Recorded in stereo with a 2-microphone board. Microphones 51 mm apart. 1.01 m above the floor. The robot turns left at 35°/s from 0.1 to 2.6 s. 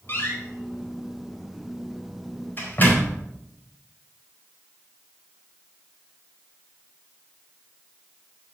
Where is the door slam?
55° left (ahead or behind), 4 m; by 3.2 s 40° left (ahead or behind), 4 m.